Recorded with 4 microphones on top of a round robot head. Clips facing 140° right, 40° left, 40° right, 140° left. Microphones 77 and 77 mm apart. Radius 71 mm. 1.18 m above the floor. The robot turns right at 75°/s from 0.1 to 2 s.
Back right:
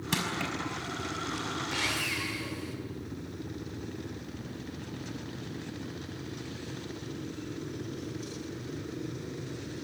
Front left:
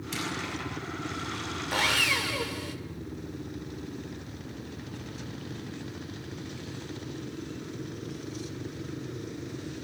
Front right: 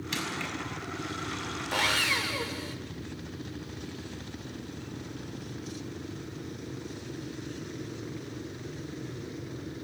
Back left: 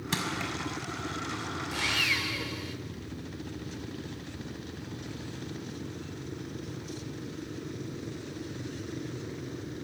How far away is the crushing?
About 5.5 m.